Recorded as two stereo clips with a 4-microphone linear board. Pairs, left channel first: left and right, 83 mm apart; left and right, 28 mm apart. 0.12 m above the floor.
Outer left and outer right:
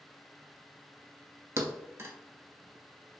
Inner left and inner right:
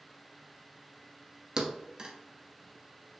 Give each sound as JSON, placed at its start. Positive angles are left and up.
{"t": 1.6, "sound": "a thud", "side_deg": -30, "distance_m": 0.7}